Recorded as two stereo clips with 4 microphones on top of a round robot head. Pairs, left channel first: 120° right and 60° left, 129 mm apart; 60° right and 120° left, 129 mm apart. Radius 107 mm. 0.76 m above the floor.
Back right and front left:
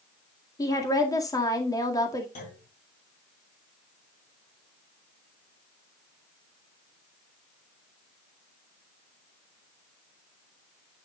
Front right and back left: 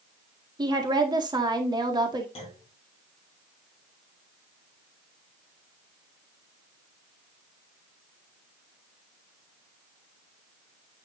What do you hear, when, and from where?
0.6 s a woman speaking: 175° left, 2 m
2.4 s a clunk: 105° right, 5.5 m